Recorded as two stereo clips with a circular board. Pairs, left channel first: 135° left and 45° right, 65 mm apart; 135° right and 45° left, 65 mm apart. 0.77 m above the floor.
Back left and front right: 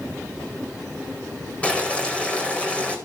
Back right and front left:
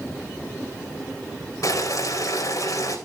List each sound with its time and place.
1.6 s boiling: 155° right, 4 m